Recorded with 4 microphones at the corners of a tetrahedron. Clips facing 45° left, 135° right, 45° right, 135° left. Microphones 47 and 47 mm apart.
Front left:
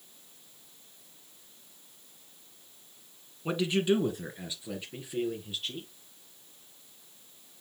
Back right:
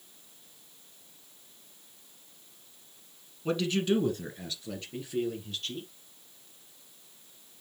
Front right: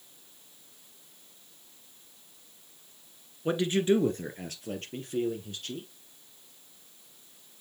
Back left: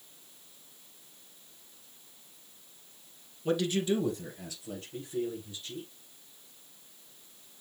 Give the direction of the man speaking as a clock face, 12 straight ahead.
12 o'clock.